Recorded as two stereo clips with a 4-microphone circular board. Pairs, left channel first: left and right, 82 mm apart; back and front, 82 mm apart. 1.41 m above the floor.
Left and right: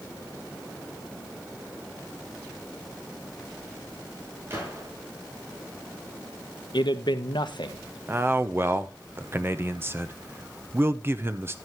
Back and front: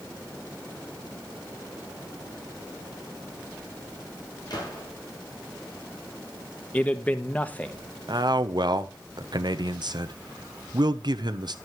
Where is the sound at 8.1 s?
30° right, 0.9 m.